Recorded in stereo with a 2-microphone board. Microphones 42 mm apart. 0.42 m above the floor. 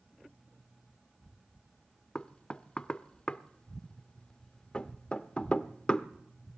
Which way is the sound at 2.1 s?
25° left (ahead or behind).